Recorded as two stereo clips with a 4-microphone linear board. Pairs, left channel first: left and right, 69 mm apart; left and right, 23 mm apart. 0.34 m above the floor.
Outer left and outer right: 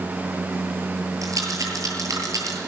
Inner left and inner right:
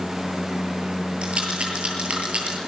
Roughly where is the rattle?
Right.